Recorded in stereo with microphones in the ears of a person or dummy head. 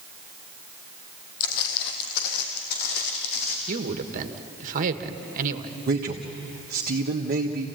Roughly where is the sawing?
No sawing in this recording.